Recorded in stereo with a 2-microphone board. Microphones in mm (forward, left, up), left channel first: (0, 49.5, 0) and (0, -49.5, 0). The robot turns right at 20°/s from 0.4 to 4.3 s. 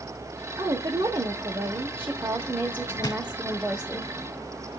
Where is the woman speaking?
80° right, 0.9 m; by 4.0 s 10° right, 0.9 m.